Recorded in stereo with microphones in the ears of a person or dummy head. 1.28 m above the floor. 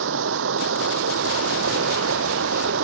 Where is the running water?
75° right (ahead or behind).